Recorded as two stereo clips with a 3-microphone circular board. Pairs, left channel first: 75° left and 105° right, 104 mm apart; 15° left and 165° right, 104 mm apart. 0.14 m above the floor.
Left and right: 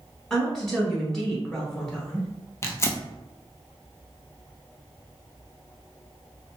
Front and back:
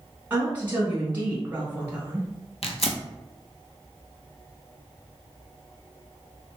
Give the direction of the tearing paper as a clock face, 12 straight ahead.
12 o'clock.